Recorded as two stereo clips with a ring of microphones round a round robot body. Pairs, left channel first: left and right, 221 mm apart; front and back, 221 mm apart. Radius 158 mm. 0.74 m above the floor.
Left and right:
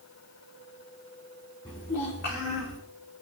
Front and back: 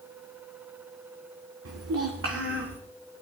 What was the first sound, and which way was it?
A child speaking, 165° left.